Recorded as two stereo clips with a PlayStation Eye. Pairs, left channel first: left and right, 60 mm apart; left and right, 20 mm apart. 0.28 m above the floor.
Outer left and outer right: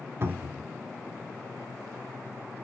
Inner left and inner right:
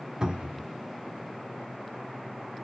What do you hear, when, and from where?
0.2 s a cupboard door: 45° right (ahead or behind), 1.0 m